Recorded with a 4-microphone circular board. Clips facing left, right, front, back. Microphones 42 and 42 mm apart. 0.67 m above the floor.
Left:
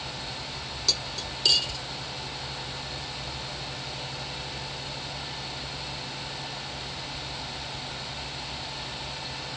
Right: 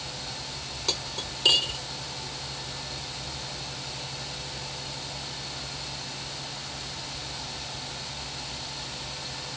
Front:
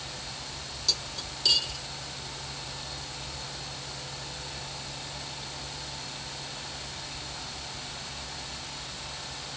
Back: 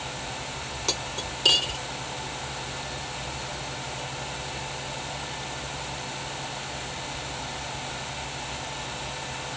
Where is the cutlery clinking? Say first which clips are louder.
Even, back 3 dB; 145° right, 0.6 m.